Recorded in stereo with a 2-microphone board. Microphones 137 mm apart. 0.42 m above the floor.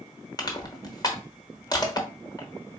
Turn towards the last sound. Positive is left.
turn(degrees=30)  # may be behind; listen again after turning